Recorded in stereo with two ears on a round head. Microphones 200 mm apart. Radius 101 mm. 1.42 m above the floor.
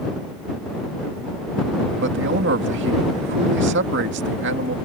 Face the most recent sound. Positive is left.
turn(degrees=-55)  # may be behind; listen again after turning